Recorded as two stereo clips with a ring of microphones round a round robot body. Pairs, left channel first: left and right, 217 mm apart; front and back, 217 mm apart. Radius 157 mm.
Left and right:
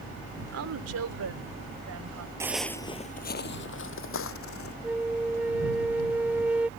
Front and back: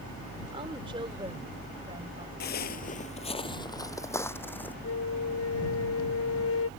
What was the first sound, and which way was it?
A woman speaking, 105° right.